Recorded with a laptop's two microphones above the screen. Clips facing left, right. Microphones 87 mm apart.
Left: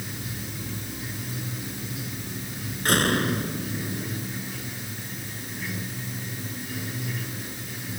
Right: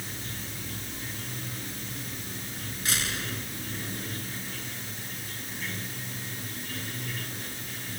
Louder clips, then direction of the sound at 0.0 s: Left 4 dB; 10° left (ahead or behind).